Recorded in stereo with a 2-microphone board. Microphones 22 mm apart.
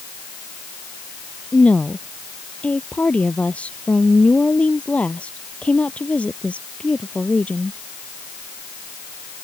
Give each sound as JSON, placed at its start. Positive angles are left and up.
{"t": 1.5, "sound": "a woman speaking", "side_deg": 70}